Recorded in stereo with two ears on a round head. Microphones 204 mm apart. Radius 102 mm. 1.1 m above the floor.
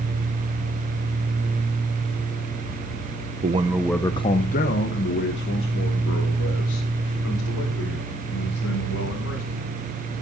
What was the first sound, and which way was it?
A man speaking, 35° right (ahead or behind).